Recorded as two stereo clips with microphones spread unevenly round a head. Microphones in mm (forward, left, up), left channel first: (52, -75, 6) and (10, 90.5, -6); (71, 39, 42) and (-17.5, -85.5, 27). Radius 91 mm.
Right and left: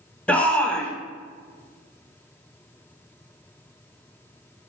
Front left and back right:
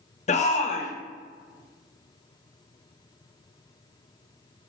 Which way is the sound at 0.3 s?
10° left.